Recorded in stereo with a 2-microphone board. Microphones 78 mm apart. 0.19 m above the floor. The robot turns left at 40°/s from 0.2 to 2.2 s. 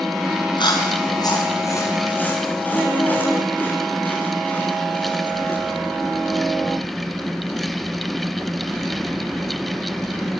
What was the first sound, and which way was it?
Chewing, 90° left.